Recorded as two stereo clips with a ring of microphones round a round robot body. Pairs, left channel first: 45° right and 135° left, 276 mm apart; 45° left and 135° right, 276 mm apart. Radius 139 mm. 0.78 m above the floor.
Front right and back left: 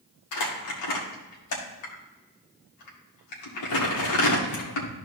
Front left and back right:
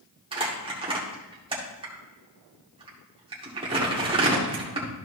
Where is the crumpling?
65° right, 2 m.